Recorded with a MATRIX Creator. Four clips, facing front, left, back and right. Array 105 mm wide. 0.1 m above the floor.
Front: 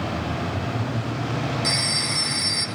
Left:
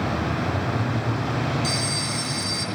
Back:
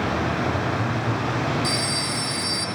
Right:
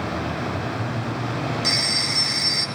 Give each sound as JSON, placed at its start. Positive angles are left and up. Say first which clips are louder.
{"t": 1.6, "sound": "a phone ringing", "louder": "even, back 2 dB", "azimuth_deg": -60, "distance_m": 1.8}